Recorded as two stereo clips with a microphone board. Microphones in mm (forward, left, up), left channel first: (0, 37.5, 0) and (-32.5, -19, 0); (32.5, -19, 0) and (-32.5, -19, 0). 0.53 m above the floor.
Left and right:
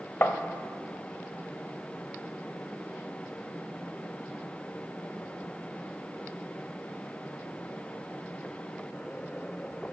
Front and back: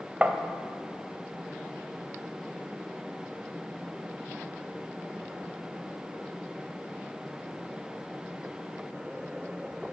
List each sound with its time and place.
0.2 s tapping: 115° left, 0.7 m